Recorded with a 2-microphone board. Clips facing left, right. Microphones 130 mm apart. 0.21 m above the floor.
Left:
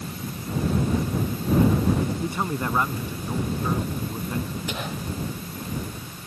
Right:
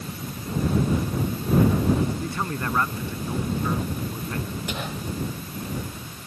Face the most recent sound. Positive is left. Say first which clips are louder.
# even
turn(degrees=0)  # may be behind; listen again after turning